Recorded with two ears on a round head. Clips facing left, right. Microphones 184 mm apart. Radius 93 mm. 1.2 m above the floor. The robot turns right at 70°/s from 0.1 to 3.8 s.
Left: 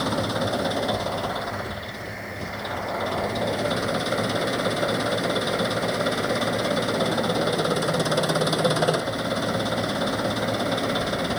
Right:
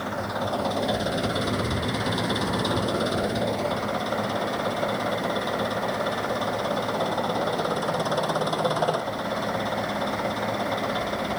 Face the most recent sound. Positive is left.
turn(degrees=25)